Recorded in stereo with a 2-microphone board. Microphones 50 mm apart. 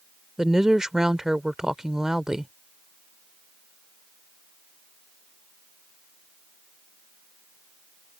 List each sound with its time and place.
0.4 s a woman speaking: 10° right (ahead or behind)